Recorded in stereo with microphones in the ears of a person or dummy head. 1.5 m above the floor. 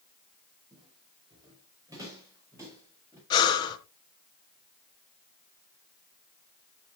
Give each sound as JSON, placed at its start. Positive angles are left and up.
{"t": 0.7, "sound": "footsteps", "side_deg": -30, "distance_m": 4.5}
{"t": 3.3, "sound": "breathing", "side_deg": 25, "distance_m": 1.4}